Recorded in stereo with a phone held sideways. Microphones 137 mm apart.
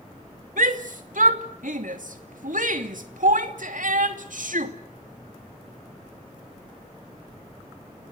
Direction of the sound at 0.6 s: 75° right (ahead or behind).